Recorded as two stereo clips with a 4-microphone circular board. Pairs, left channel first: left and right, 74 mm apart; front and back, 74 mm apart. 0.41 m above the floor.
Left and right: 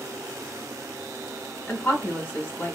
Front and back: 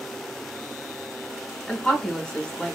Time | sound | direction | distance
1.7 | a woman speaking | 60° left | 1.0 m